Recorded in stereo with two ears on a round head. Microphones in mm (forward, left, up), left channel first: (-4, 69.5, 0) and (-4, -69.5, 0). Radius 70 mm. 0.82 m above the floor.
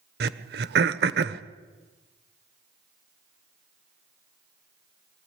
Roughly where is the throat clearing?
Right.